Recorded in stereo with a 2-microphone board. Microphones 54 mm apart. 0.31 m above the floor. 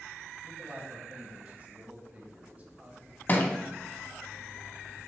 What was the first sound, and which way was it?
A man speaking, 30° right (ahead or behind).